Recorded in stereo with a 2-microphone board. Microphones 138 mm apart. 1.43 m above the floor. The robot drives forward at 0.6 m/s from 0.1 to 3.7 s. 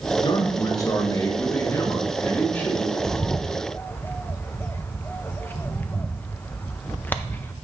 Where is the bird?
15° left (ahead or behind), 0.5 m.